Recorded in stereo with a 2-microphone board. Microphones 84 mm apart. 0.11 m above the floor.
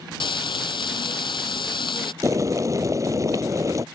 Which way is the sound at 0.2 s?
75° left (ahead or behind).